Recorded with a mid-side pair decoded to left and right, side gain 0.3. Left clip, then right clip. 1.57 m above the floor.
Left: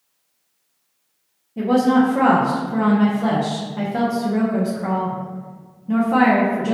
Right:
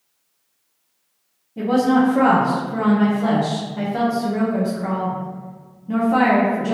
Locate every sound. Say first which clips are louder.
1.6 s a woman speaking: left 1 dB; 20° left, 0.9 m